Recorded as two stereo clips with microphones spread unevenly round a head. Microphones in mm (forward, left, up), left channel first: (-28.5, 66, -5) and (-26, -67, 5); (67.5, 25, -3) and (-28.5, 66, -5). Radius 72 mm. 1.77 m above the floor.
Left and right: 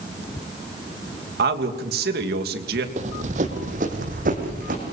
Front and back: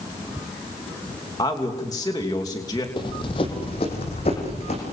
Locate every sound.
1.4 s a man speaking: 90° right, 3 m
3.0 s running footsteps: 70° right, 3 m; by 4.8 s 60° right, 5.5 m